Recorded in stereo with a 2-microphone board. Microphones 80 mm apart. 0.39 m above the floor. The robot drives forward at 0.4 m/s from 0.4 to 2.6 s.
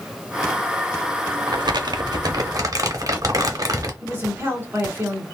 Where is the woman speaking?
30° right (ahead or behind), 1.5 m.